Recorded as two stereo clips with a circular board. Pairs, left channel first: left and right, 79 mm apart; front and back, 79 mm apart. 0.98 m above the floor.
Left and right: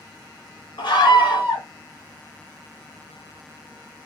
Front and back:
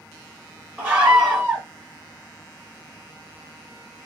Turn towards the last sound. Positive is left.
turn(degrees=110)